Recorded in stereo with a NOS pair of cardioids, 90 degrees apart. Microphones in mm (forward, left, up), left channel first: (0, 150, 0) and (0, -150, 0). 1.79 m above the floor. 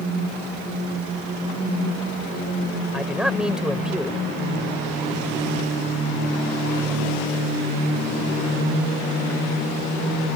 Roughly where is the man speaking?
Ahead.